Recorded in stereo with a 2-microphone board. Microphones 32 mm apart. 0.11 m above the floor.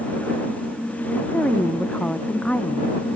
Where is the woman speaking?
35° left (ahead or behind).